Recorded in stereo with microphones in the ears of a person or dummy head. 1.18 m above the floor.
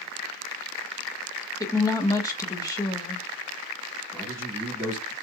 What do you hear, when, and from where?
1.6 s a woman speaking: 20° left (ahead or behind), 0.6 m
4.1 s a man speaking: 20° left (ahead or behind), 2.5 m